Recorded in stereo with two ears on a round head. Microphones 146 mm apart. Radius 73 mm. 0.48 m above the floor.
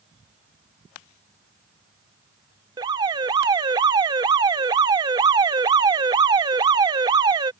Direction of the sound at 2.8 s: 25° right (ahead or behind).